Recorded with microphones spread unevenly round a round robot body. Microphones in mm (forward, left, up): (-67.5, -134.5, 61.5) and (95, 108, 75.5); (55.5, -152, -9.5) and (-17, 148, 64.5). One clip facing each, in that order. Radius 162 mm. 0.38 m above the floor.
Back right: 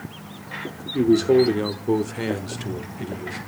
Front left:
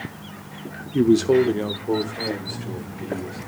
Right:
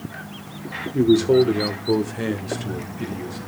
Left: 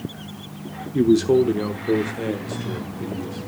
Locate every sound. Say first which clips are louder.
0.9 s a man speaking: even, right 1 dB; 20° left, 1.0 m; by 3.4 s 145° right, 2.5 m